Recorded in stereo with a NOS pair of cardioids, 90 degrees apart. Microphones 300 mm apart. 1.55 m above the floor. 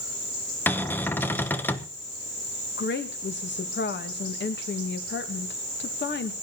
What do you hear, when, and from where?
0.7 s a cupboard door: 5° left, 1.2 m
2.8 s a woman speaking: 35° left, 2 m